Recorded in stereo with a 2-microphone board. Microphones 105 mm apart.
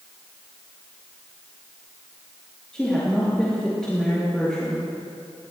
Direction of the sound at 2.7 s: 5° left (ahead or behind).